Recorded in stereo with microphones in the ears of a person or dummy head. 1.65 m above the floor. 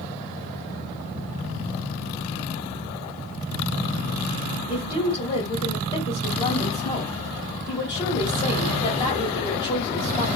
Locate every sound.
4.7 s a woman speaking: 30° left (ahead or behind), 1.5 m